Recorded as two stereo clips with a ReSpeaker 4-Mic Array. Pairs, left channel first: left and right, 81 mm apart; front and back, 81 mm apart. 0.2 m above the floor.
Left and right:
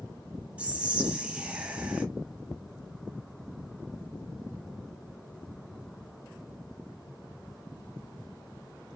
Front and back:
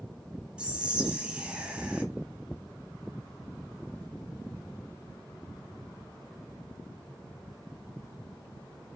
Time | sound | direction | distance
0.6 | whispering | 130° right | 1.0 m